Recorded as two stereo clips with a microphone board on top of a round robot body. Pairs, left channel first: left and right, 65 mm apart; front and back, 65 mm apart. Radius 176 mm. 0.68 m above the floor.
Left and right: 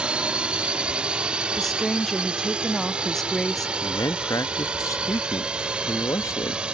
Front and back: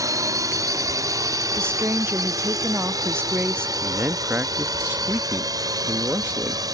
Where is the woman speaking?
175° left.